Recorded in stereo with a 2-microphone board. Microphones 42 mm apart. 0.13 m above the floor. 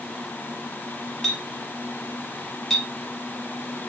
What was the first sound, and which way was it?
A clink, 10° left (ahead or behind).